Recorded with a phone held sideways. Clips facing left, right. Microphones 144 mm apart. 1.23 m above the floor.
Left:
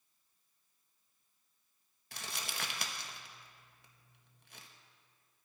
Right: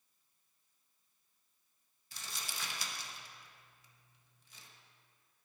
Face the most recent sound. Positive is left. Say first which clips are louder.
# left 3 dB
turn(degrees=60)  # may be behind; listen again after turning